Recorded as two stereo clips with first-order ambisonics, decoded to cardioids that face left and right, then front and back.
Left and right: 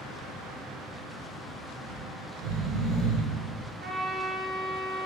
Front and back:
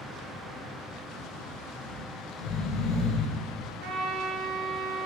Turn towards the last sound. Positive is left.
turn(degrees=-150)